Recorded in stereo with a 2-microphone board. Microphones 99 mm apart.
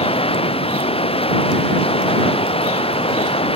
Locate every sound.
0.0 s running water: 70° left (ahead or behind)